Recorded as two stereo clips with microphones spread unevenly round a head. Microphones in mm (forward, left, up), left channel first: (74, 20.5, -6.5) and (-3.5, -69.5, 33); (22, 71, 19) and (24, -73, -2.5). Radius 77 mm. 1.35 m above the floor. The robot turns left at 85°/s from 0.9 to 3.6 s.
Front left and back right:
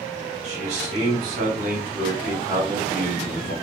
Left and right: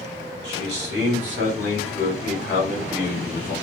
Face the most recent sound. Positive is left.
turn(degrees=25)